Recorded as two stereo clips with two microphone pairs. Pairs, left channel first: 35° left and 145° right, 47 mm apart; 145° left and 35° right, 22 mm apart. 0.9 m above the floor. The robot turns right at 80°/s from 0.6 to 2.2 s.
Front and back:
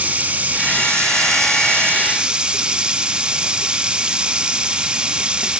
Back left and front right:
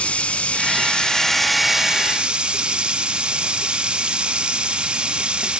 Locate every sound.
0.0 s running water: 155° left, 0.8 m; by 5.6 s 75° right, 0.8 m